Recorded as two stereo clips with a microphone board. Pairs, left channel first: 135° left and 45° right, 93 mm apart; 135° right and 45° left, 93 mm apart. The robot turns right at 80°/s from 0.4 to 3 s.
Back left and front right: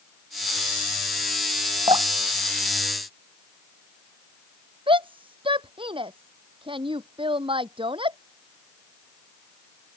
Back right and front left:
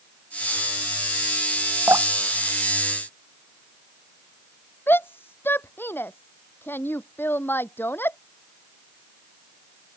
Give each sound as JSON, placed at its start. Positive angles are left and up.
{"t": 1.9, "sound": "dripping", "azimuth_deg": -20}
{"t": 4.9, "sound": "a shout", "azimuth_deg": -70}